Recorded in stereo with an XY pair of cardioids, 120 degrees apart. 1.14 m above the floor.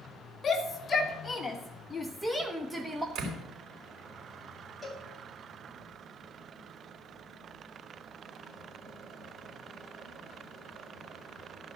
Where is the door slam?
60° right, 4 m.